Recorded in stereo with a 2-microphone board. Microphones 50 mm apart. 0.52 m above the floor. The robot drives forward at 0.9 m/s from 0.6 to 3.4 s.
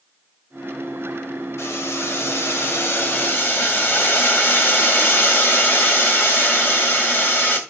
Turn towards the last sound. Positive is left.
turn(degrees=50)  # may be behind; listen again after turning